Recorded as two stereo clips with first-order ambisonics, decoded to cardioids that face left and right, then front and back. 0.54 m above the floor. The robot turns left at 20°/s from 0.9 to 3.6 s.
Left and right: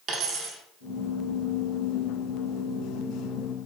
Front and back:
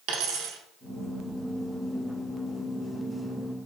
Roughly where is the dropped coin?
Behind right.